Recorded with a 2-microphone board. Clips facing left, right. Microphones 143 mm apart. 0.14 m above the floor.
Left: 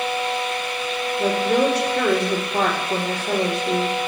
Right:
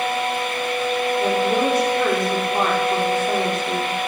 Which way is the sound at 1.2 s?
75° left (ahead or behind).